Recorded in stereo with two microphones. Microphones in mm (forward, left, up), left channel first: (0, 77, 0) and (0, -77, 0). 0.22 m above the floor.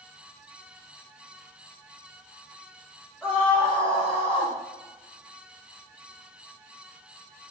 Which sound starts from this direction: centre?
A scream, at 3.2 s.